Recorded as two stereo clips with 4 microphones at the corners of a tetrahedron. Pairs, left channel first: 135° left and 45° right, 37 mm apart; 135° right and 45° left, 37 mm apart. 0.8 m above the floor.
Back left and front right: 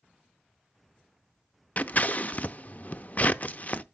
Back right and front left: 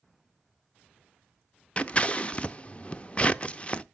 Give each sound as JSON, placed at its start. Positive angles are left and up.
{"t": 1.8, "sound": "scissors", "azimuth_deg": 175, "distance_m": 0.5}